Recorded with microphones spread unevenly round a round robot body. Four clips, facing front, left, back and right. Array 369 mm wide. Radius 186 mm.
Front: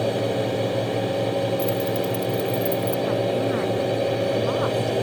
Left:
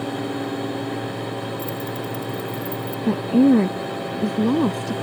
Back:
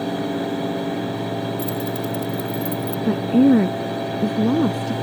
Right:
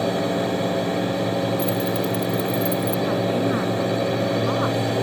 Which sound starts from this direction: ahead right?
A drone, at 0.0 s.